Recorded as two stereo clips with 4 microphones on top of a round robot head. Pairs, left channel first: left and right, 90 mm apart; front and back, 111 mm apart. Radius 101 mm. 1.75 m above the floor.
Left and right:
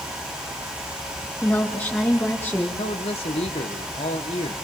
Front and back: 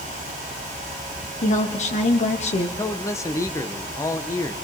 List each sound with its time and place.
1.4 s a woman speaking: 15° left, 3.5 m
2.8 s a man speaking: 60° left, 1.5 m